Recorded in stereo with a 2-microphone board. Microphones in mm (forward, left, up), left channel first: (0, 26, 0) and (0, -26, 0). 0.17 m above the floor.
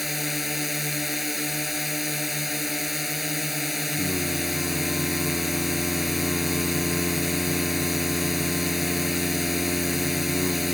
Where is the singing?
5° right (ahead or behind).